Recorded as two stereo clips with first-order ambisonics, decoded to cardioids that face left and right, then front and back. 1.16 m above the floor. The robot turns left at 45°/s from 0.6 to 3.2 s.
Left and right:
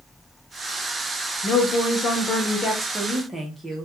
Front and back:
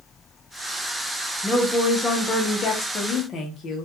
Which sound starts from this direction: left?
A woman speaking, at 1.4 s.